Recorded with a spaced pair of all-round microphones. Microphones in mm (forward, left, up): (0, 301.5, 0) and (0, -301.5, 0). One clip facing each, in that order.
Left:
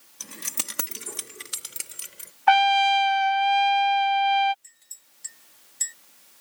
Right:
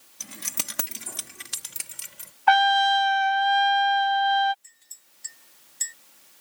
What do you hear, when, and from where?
0.2 s keys jangling: 10° right (ahead or behind); by 2.3 s 20° right (ahead or behind)
2.5 s a trumpet: centre (ahead or behind)
4.6 s a clink: centre (ahead or behind)